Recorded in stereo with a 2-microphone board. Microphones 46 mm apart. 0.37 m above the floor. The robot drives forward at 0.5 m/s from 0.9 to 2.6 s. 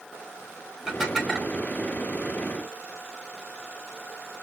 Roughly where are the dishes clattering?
Centre.